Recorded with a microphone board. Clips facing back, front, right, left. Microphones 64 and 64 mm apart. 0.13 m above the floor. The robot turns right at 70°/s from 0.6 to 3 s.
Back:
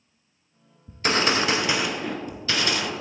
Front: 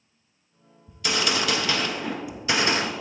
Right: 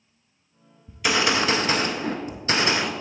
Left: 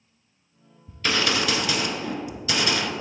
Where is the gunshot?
175° right, 0.6 m; by 2.9 s 30° right, 0.6 m.